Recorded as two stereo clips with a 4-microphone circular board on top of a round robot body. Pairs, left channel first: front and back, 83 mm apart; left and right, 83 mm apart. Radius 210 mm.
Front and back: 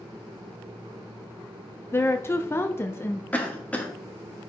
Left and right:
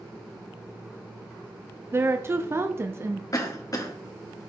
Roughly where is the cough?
Ahead left.